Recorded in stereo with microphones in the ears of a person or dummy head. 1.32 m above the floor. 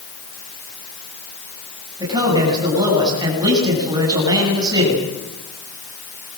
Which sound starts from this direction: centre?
A man speaking, at 2.0 s.